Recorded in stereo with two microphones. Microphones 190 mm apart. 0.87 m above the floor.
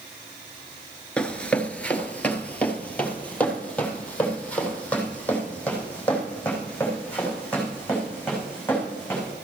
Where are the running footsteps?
5° left (ahead or behind), 0.8 m.